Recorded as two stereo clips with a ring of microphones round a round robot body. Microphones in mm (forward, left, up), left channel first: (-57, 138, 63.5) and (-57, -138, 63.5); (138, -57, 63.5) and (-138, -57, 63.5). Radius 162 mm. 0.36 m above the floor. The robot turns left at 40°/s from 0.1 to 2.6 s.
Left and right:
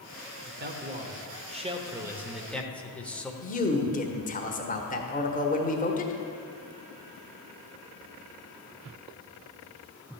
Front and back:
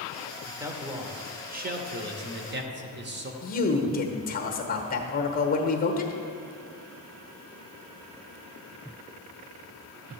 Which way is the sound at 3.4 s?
40° left.